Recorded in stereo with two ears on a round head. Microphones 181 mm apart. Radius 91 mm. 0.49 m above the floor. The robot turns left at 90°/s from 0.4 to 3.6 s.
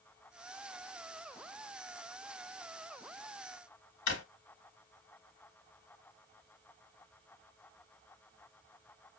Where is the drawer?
60° left (ahead or behind), 1.2 m.